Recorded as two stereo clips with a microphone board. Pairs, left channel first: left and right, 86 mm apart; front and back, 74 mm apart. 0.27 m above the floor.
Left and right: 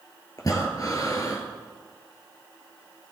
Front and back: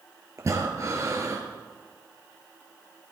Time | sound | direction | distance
0.4 | breathing | 135° left | 2.5 m